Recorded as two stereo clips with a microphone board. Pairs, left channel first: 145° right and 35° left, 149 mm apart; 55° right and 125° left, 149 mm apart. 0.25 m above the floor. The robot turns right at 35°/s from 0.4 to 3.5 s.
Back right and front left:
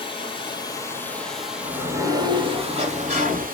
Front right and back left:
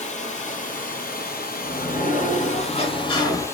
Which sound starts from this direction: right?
Running water, at 0.0 s.